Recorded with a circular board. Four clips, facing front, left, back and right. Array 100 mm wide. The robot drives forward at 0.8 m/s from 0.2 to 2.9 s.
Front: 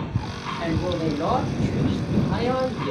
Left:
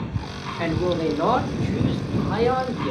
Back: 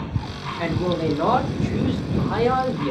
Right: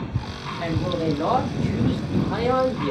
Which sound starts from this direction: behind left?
A man speaking, at 0.6 s.